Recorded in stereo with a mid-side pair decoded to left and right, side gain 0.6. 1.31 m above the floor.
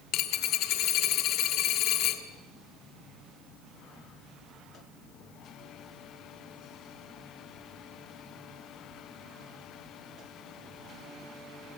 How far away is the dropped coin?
About 2.5 m.